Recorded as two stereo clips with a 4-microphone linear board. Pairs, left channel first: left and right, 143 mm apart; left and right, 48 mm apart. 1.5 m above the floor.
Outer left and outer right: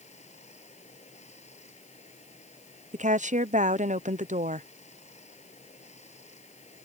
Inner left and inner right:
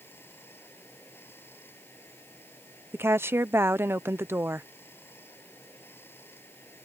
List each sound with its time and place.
0.0 s running water: 55° left (ahead or behind)
2.9 s a woman speaking: 60° right (ahead or behind)